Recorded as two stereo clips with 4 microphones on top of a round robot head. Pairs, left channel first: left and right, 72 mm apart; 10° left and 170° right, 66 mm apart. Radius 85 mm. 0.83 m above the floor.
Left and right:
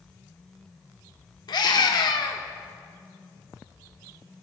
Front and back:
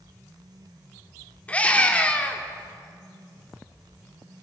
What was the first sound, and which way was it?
A scream, 75° left.